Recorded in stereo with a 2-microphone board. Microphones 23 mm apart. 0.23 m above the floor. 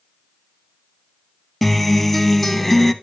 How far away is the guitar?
About 0.5 m.